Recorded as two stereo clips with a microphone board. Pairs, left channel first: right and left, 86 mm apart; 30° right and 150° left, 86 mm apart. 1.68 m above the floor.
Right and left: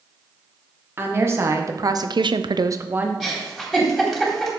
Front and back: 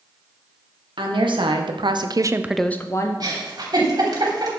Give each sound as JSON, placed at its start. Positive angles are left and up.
{"t": 1.0, "sound": "a woman speaking", "azimuth_deg": 150, "distance_m": 2.0}
{"t": 3.2, "sound": "a giggle", "azimuth_deg": 180, "distance_m": 3.5}